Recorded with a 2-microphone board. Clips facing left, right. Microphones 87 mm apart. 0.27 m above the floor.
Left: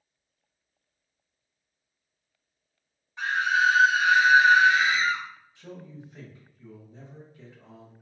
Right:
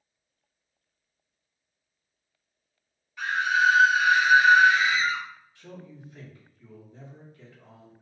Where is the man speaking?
20° left (ahead or behind), 1.1 m.